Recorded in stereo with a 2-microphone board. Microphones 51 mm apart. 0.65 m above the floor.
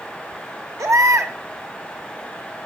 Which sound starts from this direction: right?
A baby crying, at 0.8 s.